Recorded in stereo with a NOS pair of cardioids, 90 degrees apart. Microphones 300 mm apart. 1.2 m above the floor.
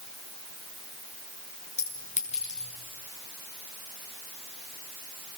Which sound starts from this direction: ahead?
A clink, at 1.8 s.